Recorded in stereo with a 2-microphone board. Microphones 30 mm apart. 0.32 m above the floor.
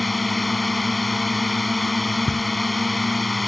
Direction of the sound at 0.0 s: Centre (ahead or behind).